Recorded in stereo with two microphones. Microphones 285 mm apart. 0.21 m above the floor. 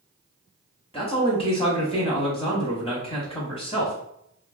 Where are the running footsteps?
I don't hear running footsteps.